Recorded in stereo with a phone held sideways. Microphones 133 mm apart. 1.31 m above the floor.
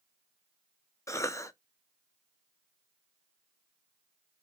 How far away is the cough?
About 0.6 m.